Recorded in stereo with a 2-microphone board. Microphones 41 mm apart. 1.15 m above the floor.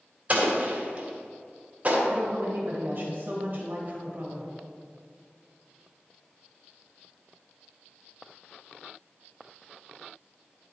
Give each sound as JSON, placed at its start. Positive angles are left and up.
{"t": 0.3, "sound": "an explosion", "side_deg": -35, "distance_m": 2.0}
{"t": 2.1, "sound": "a woman speaking", "side_deg": -40, "distance_m": 2.0}